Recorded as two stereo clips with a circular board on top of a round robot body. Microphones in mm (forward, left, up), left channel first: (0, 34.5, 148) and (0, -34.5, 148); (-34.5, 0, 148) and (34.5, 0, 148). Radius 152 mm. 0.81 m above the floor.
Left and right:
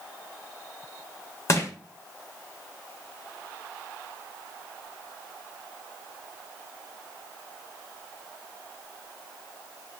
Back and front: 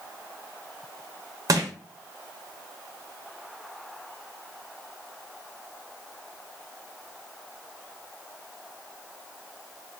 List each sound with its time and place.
1.5 s crushing: 40° left, 0.5 m